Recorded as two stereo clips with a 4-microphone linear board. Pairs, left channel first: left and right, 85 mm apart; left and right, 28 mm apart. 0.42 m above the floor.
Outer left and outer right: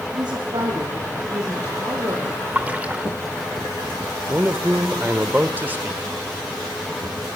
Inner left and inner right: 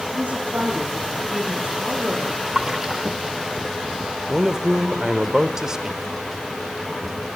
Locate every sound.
0.1 s a woman speaking: 60° right (ahead or behind), 9 m; by 2.3 s 40° right (ahead or behind), 9 m
2.5 s a splash: 20° right (ahead or behind), 1.5 m
4.3 s a man speaking: 25° right (ahead or behind), 1.0 m